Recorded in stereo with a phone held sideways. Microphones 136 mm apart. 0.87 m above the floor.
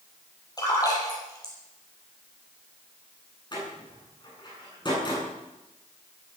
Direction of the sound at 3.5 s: 35° left (ahead or behind).